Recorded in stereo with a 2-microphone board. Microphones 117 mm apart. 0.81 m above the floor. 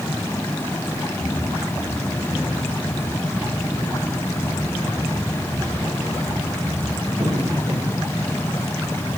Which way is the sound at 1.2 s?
10° left (ahead or behind).